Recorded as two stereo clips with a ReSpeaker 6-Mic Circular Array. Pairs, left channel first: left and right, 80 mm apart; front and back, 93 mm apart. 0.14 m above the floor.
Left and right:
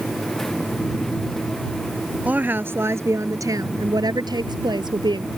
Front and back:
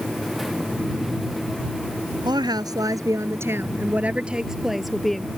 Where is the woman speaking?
155° right; by 5.3 s 85° right.